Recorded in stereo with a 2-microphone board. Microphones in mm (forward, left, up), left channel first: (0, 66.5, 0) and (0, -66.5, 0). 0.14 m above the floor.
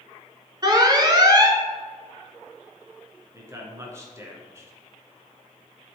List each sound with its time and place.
0.6 s an alarm: 30° right (ahead or behind), 0.9 m
3.3 s a man speaking: 20° right (ahead or behind), 1.4 m